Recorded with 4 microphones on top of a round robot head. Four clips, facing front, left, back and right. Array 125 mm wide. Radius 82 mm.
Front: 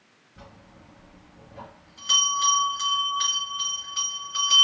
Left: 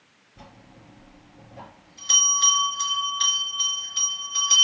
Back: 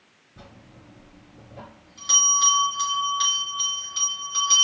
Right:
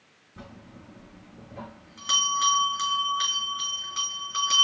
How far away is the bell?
About 4 m.